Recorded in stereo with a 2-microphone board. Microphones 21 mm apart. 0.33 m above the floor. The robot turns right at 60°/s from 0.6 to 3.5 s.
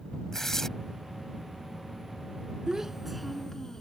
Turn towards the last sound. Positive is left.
turn(degrees=20)